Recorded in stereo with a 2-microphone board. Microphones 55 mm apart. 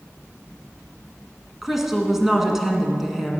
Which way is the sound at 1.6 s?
5° right (ahead or behind).